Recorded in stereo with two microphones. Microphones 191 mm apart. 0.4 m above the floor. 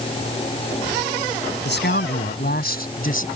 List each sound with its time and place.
1.6 s a man speaking: 70° left (ahead or behind); by 3.3 s 45° left (ahead or behind)